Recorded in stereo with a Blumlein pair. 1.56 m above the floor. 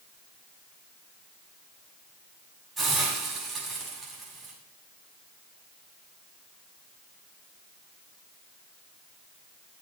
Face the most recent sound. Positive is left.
turn(degrees=-10)